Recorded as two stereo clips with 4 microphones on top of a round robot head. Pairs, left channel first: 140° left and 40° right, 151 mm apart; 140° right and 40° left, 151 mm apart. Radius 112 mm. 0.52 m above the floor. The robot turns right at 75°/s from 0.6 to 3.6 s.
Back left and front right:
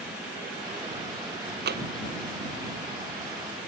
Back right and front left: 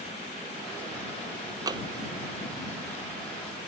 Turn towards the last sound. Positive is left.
turn(degrees=115)